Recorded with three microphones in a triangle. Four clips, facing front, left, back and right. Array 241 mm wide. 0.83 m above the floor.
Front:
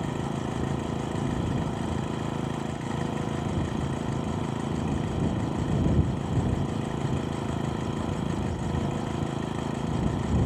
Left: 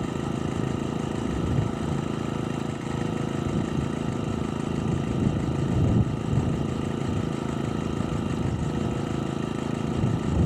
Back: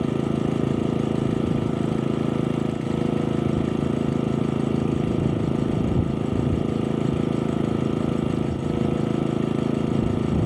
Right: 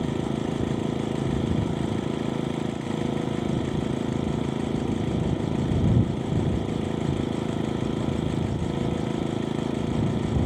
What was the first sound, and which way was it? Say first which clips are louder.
An engine running: right 2 dB, back 8 dB; 170° right.